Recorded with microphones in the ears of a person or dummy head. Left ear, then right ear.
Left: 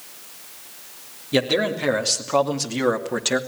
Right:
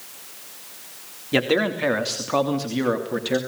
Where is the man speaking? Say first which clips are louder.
Even; 20° right (ahead or behind), 3.5 m; by 3.4 s 35° left (ahead or behind), 3 m.